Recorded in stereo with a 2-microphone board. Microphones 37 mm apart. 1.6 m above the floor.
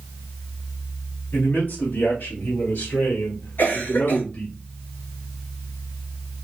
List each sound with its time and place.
1.3 s a man speaking: 80° left, 3 m; by 4.5 s 65° left (ahead or behind), 1.3 m
3.6 s a cough: 70° left (ahead or behind), 3 m